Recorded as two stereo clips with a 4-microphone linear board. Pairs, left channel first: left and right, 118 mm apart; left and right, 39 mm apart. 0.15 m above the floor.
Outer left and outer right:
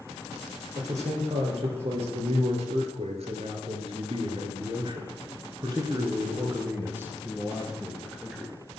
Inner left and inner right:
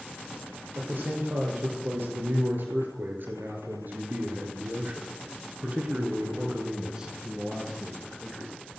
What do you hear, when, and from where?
0.8 s a man speaking: 65° right (ahead or behind), 4 m; by 8.5 s 5° left (ahead or behind), 2 m